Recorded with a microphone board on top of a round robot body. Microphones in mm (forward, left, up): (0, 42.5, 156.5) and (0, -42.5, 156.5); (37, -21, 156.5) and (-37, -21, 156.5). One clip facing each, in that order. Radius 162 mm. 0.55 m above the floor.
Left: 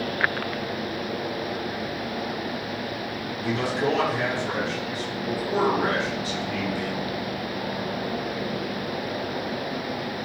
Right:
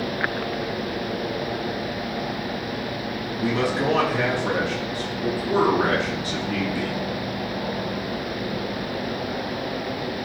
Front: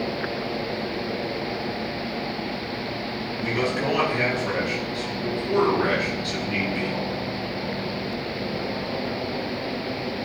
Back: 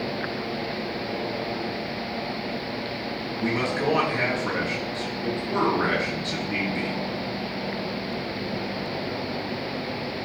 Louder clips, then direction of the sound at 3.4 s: Right 2 dB, even; 120° right.